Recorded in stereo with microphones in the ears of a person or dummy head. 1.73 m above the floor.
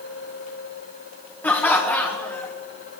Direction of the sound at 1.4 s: 10° left (ahead or behind).